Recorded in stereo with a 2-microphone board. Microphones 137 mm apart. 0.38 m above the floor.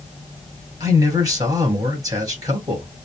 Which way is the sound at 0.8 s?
30° right (ahead or behind).